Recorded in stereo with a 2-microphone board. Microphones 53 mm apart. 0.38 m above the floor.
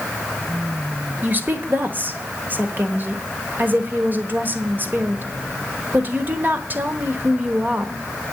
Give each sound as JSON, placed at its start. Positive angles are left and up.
{"t": 1.2, "sound": "a woman speaking", "side_deg": -40, "distance_m": 1.2}